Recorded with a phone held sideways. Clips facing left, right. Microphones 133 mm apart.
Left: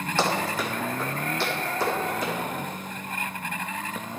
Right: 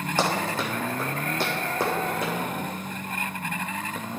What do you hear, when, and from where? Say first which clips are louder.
0.2 s running footsteps: even; 15° right (ahead or behind), 2.5 m; by 2.3 s 55° right (ahead or behind), 4 m